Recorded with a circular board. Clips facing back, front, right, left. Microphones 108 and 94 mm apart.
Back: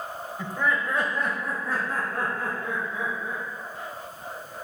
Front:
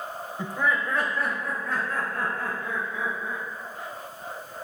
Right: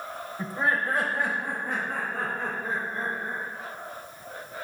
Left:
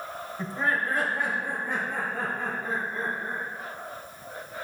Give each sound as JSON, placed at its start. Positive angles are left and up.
{"t": 0.4, "sound": "laughter", "azimuth_deg": -20, "distance_m": 0.9}